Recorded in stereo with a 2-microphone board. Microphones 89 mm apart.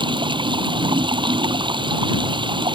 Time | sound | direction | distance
0.0 | running water | 65° right (ahead or behind) | ?